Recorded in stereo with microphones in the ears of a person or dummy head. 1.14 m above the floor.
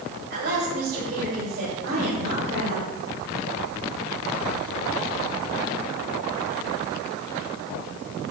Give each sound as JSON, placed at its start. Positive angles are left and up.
{"t": 0.3, "sound": "a woman speaking", "side_deg": -55, "distance_m": 2.5}